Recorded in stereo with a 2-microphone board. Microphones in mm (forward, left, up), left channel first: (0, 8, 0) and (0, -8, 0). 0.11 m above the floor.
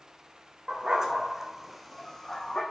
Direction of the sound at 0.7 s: 45° right (ahead or behind).